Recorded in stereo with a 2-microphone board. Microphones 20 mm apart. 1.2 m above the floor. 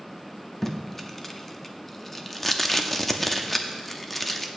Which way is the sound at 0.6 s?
15° left (ahead or behind).